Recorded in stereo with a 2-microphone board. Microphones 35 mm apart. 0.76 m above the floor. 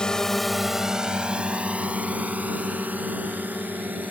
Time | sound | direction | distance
0.0 | a drone | 25° left (ahead or behind) | ?